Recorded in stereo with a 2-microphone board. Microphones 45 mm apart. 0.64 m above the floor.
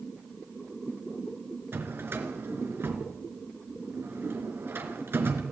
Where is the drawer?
50° right (ahead or behind), 3 m.